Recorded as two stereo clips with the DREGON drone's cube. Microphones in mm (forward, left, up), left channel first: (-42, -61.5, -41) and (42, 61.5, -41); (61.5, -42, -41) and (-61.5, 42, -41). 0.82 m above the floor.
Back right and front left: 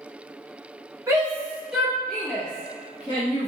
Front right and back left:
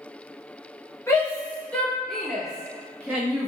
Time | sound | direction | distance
1.1 | a shout | 15° left | 1.0 m